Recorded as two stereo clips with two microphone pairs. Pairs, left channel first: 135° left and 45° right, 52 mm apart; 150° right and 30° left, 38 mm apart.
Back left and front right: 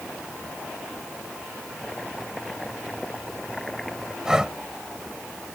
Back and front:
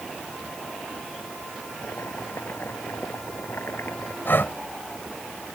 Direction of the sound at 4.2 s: 120° right.